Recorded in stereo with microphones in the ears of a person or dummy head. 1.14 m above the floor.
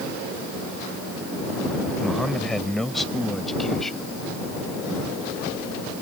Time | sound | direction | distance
2.0 | a man speaking | centre (ahead or behind) | ?